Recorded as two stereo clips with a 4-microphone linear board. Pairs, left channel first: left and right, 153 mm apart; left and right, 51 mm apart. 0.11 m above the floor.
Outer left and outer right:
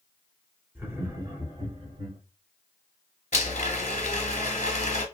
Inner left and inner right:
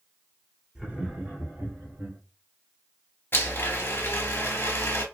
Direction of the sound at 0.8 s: 15° right (ahead or behind).